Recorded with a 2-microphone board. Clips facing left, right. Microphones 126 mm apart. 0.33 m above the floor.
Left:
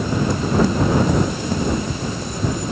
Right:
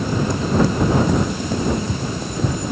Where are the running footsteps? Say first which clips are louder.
Right 1 dB; 60° right (ahead or behind).